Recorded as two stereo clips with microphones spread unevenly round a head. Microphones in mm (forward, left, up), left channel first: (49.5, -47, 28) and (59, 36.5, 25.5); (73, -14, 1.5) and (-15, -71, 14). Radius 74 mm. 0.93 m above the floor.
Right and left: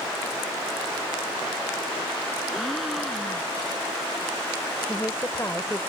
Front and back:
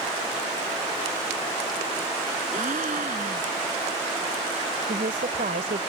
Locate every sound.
2.5 s a gasp: 175° left
4.9 s a woman speaking: 170° right